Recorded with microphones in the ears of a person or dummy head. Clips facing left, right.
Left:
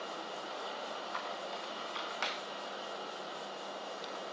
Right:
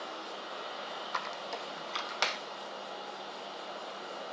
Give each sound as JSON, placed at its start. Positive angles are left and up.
{"t": 1.1, "sound": "a squeak", "side_deg": -60, "distance_m": 1.3}